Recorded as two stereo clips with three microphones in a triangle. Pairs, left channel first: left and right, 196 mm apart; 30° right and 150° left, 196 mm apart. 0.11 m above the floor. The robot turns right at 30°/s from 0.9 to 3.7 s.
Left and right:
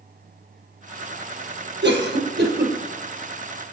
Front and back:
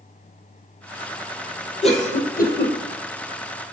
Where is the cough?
85° right, 2.5 m; by 2.8 s 55° right, 2.5 m.